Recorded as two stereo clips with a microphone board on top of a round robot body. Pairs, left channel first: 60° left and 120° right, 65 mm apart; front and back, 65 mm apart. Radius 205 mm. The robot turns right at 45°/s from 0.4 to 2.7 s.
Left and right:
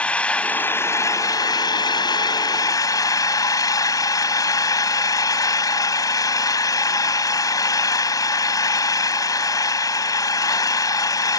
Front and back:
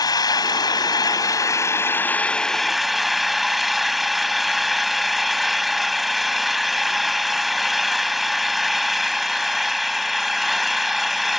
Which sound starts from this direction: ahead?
An engine running, at 0.0 s.